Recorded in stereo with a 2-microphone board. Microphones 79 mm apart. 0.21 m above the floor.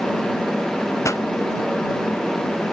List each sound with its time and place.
1.0 s a pop: 40° left (ahead or behind)